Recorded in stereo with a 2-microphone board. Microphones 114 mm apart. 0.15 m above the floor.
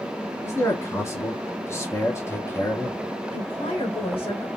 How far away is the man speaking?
About 1.2 m.